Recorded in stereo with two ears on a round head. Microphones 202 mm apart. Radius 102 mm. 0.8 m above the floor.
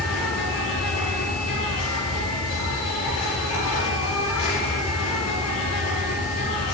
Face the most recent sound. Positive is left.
turn(degrees=75)  # may be behind; listen again after turning